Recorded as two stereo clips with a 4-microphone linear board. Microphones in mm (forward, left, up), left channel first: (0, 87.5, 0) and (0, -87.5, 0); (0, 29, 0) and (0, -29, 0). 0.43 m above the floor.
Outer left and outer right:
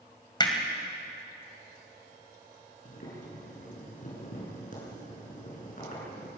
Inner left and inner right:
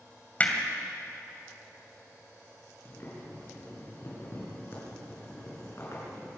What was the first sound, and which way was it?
Hammering, 25° left (ahead or behind).